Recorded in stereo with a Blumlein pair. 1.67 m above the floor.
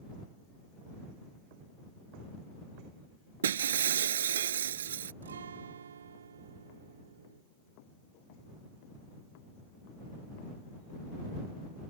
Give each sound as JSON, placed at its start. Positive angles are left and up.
{"t": 3.4, "sound": "breaking glass", "azimuth_deg": -65}
{"t": 5.2, "sound": "a guitar", "azimuth_deg": -65}